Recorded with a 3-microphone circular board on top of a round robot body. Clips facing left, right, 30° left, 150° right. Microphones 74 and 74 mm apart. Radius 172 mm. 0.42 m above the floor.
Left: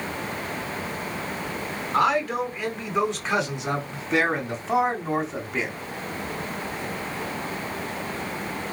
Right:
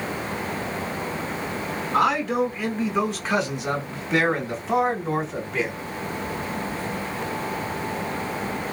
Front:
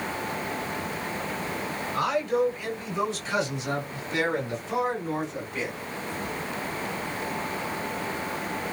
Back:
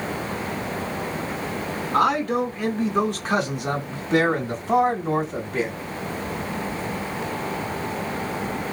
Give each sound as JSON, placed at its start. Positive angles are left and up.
{"t": 1.9, "sound": "a man speaking", "azimuth_deg": -175, "distance_m": 5.5}